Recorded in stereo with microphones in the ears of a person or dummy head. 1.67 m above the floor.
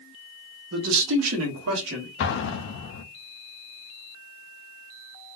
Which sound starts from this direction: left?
An explosion, at 2.2 s.